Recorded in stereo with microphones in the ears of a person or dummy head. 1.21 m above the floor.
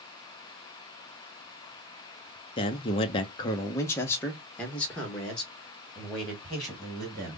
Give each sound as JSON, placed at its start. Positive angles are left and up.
{"t": 2.6, "sound": "a man speaking", "side_deg": 25, "distance_m": 0.5}